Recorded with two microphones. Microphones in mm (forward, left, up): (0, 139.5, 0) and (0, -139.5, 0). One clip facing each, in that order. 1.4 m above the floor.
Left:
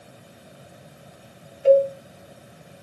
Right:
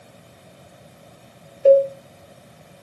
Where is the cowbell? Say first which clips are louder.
Right 3 dB; 50° right (ahead or behind), 1.1 m.